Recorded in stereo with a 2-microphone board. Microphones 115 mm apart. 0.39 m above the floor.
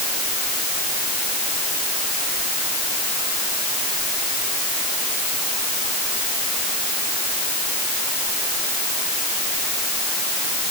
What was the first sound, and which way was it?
Only background noise.